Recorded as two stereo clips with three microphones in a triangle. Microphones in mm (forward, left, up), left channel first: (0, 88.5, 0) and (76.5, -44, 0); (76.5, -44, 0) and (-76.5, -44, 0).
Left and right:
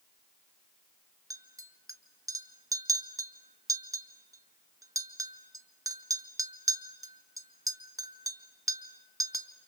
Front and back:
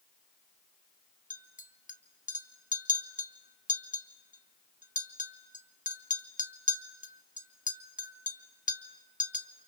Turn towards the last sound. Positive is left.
turn(degrees=5)